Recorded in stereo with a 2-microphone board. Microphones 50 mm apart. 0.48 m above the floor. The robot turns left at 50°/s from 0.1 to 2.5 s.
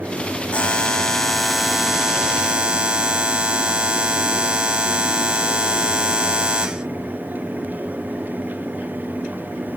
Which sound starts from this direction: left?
A buzzer, at 0.5 s.